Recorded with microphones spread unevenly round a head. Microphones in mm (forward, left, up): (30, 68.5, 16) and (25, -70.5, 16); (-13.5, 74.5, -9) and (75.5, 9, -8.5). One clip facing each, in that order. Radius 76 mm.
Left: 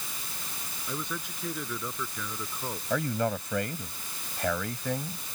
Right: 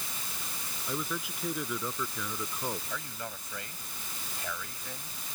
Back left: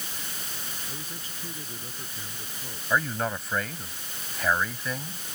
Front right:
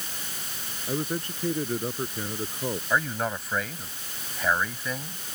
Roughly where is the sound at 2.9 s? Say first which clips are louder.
Left 13 dB, back left 2 dB; ahead left.